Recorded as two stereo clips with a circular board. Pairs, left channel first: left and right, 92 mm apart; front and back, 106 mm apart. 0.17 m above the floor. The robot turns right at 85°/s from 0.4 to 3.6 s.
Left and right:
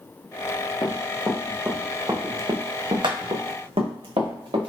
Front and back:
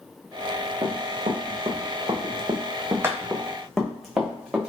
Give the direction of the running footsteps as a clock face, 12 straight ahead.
7 o'clock.